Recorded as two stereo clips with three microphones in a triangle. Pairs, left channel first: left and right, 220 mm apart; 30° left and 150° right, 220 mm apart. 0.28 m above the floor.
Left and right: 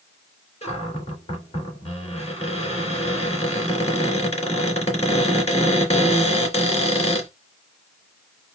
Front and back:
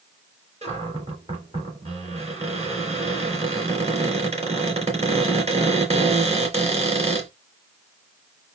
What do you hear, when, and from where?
0.6 s a cupboard door: 150° left, 2.5 m